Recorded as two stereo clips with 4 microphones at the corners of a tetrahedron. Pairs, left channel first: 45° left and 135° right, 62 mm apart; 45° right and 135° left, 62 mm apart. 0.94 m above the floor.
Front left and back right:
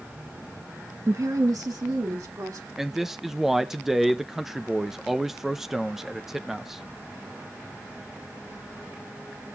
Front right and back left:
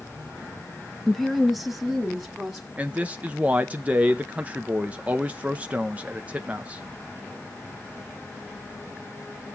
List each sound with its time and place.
1.1 s a woman speaking: 125° right, 0.7 m; by 2.7 s 140° right, 3 m
2.8 s a man speaking: 155° left, 0.5 m